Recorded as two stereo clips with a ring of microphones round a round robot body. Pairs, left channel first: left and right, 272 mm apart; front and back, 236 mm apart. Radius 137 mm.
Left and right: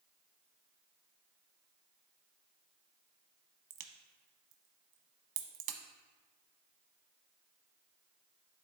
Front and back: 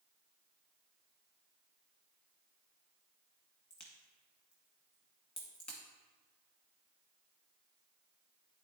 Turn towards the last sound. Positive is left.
turn(degrees=-85)